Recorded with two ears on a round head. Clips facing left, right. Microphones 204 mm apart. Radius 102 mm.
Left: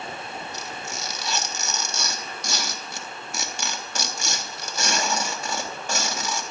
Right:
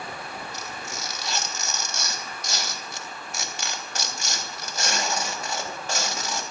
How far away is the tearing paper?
About 3 m.